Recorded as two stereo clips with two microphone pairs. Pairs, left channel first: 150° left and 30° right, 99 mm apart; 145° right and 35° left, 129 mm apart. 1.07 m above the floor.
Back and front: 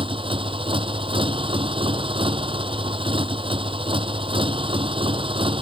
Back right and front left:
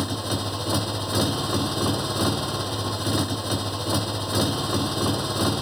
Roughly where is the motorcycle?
Ahead right.